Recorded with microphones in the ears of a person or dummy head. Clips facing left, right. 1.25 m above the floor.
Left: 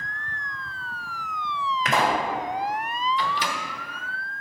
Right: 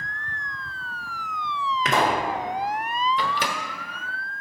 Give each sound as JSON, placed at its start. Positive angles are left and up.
{"t": 1.9, "sound": "a pop", "side_deg": -80, "distance_m": 2.5}
{"t": 3.2, "sound": "a microwave", "side_deg": -45, "distance_m": 1.0}